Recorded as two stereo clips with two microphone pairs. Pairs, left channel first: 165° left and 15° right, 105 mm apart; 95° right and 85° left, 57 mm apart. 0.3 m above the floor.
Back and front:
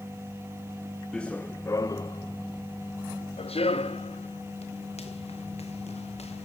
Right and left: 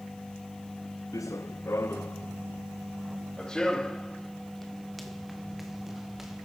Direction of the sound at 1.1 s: 115° right.